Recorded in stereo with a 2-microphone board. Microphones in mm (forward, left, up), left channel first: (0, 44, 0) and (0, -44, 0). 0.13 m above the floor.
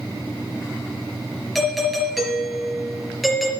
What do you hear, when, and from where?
1.6 s a doorbell: centre (ahead or behind), 3.5 m